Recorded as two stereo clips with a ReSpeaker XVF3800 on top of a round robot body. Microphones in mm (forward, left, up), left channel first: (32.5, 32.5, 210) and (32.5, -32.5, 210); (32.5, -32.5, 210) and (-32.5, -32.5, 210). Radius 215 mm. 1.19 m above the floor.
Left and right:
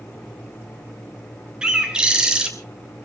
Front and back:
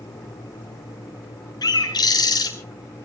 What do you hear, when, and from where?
1.6 s a bird: 10° right, 2 m